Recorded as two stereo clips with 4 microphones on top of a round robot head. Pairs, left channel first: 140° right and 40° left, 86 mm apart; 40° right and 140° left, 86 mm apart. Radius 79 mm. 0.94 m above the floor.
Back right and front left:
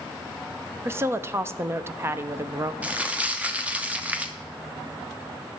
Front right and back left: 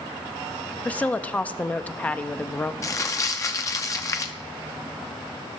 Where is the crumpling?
20° right, 1.1 m.